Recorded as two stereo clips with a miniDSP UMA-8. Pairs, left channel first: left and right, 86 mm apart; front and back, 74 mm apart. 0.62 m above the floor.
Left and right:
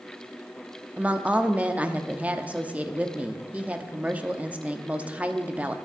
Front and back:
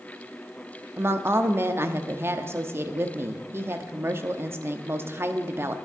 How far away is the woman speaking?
About 0.8 m.